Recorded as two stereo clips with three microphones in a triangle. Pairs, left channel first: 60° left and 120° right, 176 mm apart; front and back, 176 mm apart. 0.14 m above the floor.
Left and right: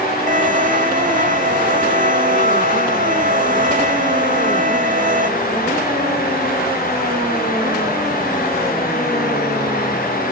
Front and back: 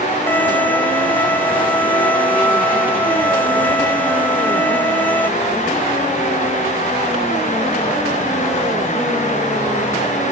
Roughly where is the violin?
Right.